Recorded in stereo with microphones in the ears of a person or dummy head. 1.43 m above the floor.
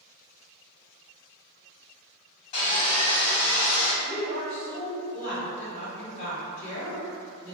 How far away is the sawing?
About 2.0 m.